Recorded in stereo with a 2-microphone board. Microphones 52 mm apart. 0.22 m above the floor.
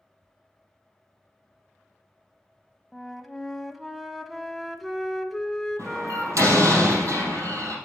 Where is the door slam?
80° right, 4 m.